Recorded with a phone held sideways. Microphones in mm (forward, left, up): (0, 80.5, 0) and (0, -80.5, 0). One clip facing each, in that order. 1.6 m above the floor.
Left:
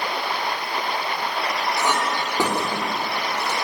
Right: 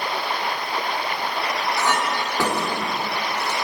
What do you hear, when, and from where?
1.8 s a clink: 15° left (ahead or behind), 2.5 m